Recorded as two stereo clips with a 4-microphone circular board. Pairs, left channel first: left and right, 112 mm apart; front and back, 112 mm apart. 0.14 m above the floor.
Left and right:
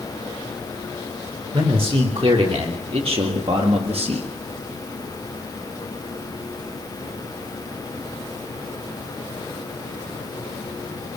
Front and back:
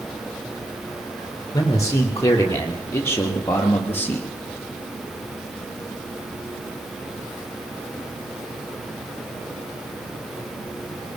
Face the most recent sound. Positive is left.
turn(degrees=-75)